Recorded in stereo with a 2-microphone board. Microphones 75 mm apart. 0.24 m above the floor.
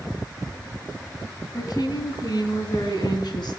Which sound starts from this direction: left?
A woman speaking, at 1.5 s.